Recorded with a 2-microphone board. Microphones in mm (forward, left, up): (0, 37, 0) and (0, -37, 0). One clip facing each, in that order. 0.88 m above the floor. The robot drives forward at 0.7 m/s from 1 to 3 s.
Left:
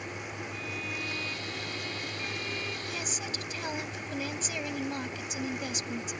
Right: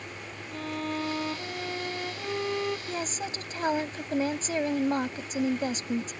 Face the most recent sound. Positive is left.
turn(degrees=-40)  # may be behind; listen again after turning